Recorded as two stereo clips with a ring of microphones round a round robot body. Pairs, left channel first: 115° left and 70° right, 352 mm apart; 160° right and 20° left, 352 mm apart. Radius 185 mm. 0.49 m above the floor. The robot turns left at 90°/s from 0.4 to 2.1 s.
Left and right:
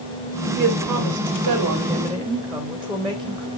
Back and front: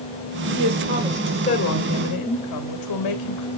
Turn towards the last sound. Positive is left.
turn(degrees=-155)